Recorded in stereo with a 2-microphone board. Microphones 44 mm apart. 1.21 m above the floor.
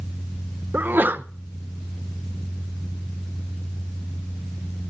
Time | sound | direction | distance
0.7 | a sneeze | 50° right (ahead or behind) | 0.6 m